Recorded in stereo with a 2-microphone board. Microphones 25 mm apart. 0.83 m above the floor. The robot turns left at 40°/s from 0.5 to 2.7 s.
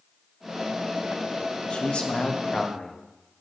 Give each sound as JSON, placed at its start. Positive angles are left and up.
{"t": 1.7, "sound": "a man speaking", "azimuth_deg": 90, "distance_m": 0.9}